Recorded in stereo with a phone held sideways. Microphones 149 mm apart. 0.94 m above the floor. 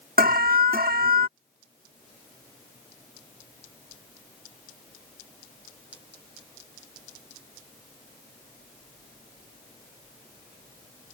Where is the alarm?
90° right.